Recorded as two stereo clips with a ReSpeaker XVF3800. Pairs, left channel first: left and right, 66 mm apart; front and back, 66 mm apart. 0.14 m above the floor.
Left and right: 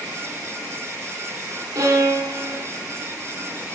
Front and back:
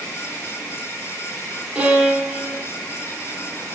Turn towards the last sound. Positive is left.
turn(degrees=-105)